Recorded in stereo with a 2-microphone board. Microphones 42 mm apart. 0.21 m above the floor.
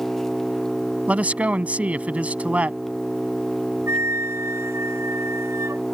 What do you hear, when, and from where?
0.0 s an engine running: 10° left (ahead or behind)
1.1 s a man speaking: 35° right (ahead or behind)
3.9 s a flute: 80° right